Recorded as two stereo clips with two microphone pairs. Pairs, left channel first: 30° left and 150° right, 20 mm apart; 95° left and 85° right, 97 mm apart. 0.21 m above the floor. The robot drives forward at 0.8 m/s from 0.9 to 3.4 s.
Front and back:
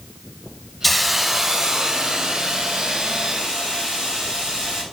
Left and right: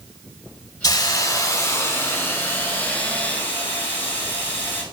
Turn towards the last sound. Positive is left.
turn(degrees=170)